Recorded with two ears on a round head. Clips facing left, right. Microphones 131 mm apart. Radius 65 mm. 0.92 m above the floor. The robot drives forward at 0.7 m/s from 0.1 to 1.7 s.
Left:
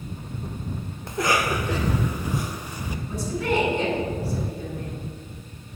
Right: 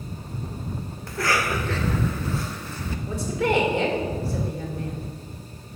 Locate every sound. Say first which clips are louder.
1.1 s a cough: left 2 dB; 20° left (ahead or behind), 0.7 m; by 3.0 s 10° left (ahead or behind), 1.0 m
3.1 s a woman speaking: right 2 dB; 55° right (ahead or behind), 3.5 m